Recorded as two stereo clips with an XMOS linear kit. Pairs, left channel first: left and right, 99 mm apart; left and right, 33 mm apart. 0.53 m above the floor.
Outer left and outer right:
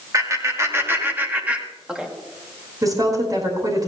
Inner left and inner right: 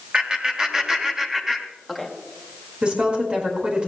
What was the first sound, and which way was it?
Laughter, 35° right (ahead or behind).